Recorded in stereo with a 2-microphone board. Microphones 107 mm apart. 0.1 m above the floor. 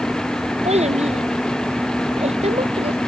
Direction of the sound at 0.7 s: 85° right.